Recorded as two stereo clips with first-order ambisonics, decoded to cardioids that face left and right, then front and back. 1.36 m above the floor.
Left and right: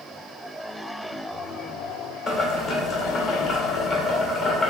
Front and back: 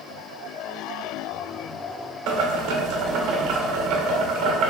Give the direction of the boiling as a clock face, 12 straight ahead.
6 o'clock.